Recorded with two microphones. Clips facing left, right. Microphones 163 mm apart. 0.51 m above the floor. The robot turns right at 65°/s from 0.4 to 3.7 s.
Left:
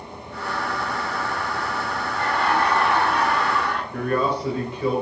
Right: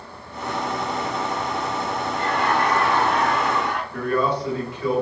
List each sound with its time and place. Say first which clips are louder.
2.1 s laughter: even; 100° left, 1.7 m; by 3.8 s 155° right, 1.7 m
3.9 s a man speaking: even; 25° left (ahead or behind), 1.3 m